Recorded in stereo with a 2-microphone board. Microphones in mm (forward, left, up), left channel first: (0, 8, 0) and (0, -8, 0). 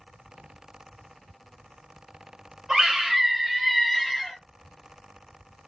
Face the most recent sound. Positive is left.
turn(degrees=15)  # may be behind; listen again after turning